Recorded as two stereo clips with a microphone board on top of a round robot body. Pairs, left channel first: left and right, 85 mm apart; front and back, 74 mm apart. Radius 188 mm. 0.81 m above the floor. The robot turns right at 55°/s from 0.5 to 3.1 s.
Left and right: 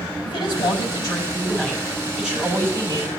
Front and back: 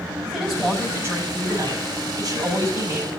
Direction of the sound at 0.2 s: 95° left.